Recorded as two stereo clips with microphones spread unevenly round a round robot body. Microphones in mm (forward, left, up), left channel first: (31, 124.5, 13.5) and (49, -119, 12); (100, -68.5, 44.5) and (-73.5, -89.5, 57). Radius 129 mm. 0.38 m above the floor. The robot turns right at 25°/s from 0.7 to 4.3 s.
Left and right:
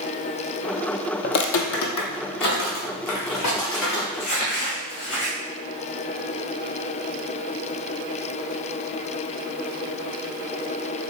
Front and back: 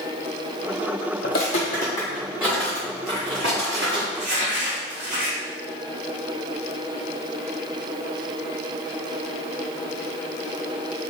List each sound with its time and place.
1.2 s footsteps: 55° left, 0.5 m; by 4.0 s 145° left, 2.5 m
4.1 s crumpling: 140° left, 1.9 m